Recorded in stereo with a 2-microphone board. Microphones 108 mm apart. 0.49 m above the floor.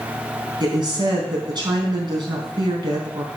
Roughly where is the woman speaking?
Right.